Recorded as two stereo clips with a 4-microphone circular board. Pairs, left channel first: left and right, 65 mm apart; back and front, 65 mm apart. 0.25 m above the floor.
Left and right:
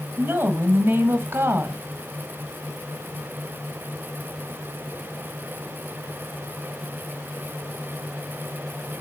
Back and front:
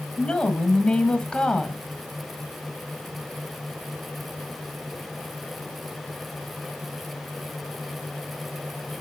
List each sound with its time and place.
0.2 s a woman speaking: 110° right, 1.1 m